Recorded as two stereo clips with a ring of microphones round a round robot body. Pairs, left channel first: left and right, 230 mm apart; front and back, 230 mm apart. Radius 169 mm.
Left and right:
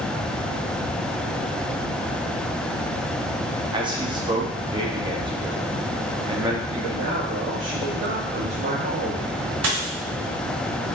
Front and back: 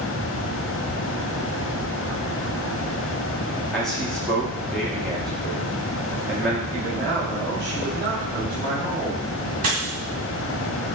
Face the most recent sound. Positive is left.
turn(degrees=-115)